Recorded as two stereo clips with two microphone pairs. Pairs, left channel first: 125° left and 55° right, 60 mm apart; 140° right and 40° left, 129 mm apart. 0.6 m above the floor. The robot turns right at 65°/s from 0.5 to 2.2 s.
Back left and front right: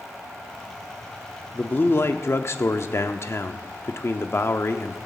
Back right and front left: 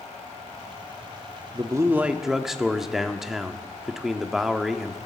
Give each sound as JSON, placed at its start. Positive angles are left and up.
{"t": 1.5, "sound": "a man speaking", "azimuth_deg": 75, "distance_m": 0.8}